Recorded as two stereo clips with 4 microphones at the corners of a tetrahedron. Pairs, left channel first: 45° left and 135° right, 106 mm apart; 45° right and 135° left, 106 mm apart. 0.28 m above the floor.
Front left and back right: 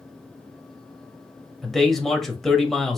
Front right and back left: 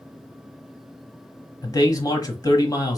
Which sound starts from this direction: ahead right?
A man speaking, at 1.6 s.